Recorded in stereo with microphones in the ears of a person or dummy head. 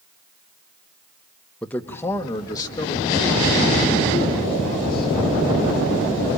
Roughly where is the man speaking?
Centre.